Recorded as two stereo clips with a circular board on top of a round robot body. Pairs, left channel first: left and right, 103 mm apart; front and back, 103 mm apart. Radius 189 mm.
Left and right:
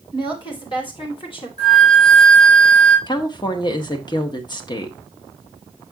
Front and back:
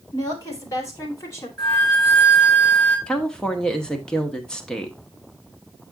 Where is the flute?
95° left, 5.5 m.